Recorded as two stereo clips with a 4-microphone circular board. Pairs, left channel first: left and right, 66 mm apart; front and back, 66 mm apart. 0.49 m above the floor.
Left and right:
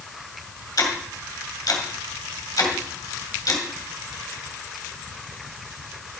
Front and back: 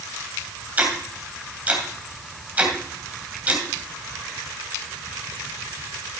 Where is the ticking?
115° left, 2.5 m.